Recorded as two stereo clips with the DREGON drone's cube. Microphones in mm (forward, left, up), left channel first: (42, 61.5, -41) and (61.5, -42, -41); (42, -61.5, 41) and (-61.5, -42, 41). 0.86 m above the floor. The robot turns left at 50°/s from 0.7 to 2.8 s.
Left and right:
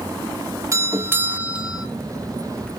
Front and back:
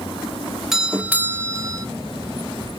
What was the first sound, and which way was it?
A doorbell, 105° right.